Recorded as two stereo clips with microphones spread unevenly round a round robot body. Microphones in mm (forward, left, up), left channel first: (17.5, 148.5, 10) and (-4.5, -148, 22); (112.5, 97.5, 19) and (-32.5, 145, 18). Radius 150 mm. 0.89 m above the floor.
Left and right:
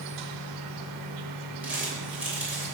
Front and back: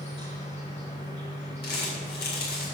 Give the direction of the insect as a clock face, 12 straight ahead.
3 o'clock.